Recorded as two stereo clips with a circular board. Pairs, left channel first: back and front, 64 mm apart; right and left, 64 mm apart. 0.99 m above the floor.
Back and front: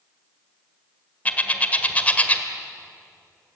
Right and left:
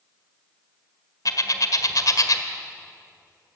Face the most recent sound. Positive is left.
turn(degrees=-115)